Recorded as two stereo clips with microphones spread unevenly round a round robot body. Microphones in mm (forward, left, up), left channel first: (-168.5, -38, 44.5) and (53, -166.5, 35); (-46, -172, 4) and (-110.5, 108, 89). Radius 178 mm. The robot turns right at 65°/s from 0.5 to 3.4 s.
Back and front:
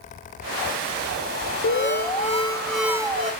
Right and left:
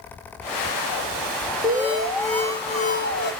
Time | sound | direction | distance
1.6 | an alarm | 170° left | 1.5 m